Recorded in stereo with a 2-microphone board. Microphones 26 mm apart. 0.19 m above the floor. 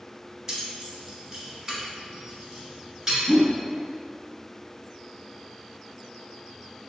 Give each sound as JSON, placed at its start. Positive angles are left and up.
{"t": 0.5, "sound": "keys jangling", "side_deg": -20, "distance_m": 0.7}
{"t": 3.3, "sound": "a whoosh", "side_deg": -10, "distance_m": 0.5}